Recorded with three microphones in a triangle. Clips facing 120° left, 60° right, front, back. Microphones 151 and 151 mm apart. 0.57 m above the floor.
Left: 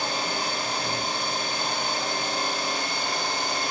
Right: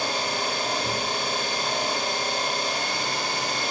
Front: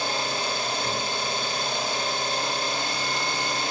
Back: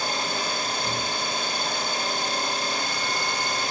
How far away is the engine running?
About 1.7 m.